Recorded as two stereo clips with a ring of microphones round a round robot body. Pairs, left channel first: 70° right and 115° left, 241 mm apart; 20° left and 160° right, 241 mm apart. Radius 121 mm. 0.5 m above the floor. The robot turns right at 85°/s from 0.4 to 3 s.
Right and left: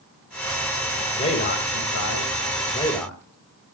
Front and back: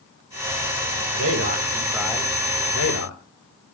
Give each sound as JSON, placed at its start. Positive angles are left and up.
{"t": 1.1, "sound": "a man speaking", "azimuth_deg": -140, "distance_m": 3.0}